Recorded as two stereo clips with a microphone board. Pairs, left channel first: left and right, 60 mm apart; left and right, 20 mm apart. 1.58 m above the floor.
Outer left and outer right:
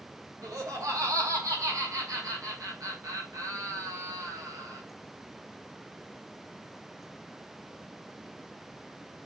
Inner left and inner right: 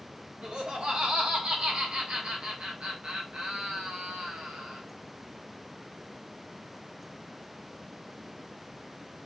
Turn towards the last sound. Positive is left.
turn(degrees=-75)  # may be behind; listen again after turning